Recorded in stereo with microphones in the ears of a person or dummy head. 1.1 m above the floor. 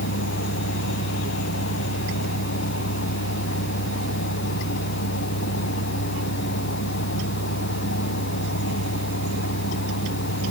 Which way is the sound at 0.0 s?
65° left (ahead or behind).